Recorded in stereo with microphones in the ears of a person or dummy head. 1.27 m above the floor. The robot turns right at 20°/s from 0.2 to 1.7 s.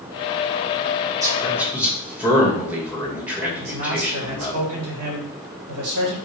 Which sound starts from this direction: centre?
A man speaking, at 1.2 s.